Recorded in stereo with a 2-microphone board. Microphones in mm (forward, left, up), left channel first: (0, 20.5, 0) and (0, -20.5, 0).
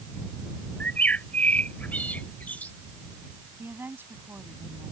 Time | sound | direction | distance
0.8 | a bird | 40° left (ahead or behind) | ?
3.6 | a woman speaking | 65° right (ahead or behind) | ?